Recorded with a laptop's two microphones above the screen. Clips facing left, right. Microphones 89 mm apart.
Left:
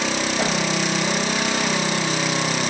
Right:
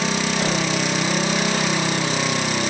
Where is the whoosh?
30° left (ahead or behind), 3.5 m.